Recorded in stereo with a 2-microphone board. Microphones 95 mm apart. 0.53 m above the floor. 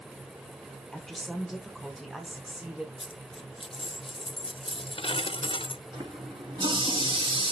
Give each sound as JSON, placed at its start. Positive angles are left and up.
{"t": 0.9, "sound": "a woman speaking", "side_deg": 5, "distance_m": 1.6}
{"t": 3.0, "sound": "a dropped coin", "side_deg": 65, "distance_m": 0.5}
{"t": 5.9, "sound": "a running tap", "side_deg": -60, "distance_m": 4.0}